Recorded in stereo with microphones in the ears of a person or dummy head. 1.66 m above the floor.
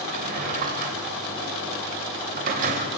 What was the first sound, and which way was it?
A drawer, 50° right (ahead or behind).